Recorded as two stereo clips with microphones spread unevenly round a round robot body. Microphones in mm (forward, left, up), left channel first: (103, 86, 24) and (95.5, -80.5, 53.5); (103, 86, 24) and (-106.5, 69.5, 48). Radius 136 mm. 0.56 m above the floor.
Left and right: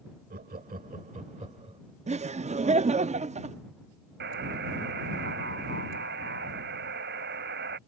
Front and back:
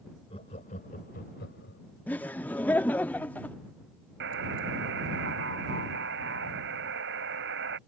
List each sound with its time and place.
0.3 s laughter: 65° right; by 1.8 s 35° right
2.1 s laughter: 65° right
4.2 s a buzzer: 130° right